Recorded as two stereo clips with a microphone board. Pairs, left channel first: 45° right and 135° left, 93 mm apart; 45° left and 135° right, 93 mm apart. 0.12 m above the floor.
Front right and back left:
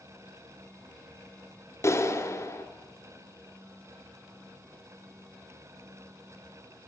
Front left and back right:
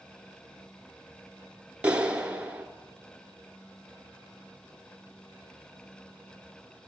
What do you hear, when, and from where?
1.8 s a clap: 70° right, 1.0 m